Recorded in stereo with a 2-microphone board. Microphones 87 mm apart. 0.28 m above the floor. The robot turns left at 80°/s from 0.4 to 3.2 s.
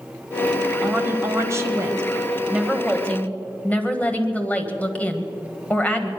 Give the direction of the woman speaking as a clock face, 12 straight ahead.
1 o'clock.